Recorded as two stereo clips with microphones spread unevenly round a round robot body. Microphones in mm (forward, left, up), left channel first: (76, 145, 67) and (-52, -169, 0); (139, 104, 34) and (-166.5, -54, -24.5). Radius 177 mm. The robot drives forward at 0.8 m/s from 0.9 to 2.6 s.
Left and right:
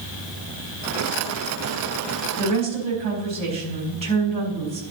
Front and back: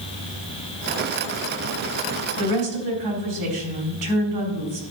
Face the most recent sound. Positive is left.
turn(degrees=180)